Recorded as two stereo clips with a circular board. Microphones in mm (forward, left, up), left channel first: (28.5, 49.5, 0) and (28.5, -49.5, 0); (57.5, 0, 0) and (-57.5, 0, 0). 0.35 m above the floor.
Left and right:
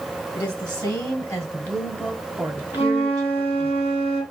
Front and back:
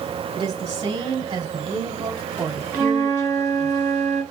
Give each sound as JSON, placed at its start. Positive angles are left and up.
{"t": 0.3, "sound": "a woman speaking", "azimuth_deg": 130, "distance_m": 2.0}
{"t": 2.7, "sound": "a flute", "azimuth_deg": 100, "distance_m": 3.5}